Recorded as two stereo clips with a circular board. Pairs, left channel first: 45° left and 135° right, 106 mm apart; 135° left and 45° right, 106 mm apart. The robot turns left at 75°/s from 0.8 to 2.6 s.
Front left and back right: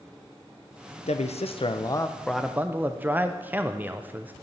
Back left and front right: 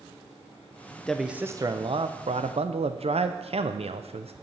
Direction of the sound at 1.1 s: 55° left.